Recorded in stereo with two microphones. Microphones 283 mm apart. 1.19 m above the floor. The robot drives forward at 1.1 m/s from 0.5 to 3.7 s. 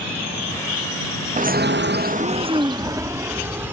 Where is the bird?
25° right (ahead or behind); by 3.7 s 10° right (ahead or behind).